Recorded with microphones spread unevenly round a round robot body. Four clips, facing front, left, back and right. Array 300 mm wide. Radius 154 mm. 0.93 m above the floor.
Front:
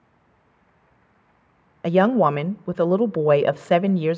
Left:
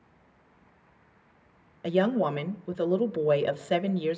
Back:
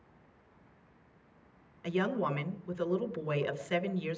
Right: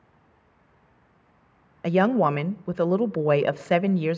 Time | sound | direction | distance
1.8 | a woman speaking | 15° right | 0.7 m